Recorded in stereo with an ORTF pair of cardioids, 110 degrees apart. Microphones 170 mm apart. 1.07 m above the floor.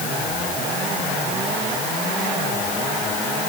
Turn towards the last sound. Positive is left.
No sound to turn to.